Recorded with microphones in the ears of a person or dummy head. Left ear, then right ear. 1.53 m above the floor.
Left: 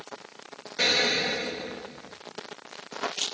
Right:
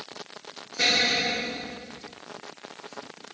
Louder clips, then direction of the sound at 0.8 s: Right 1 dB; 30° left (ahead or behind).